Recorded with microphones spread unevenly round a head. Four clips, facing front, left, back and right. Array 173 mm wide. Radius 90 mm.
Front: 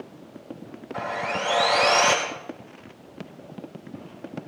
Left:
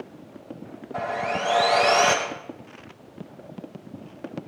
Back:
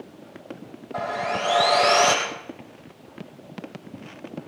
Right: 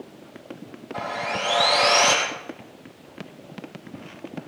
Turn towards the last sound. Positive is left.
turn(degrees=165)